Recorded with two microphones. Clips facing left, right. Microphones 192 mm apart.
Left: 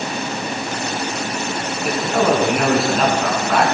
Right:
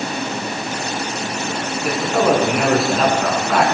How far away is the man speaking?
About 5 m.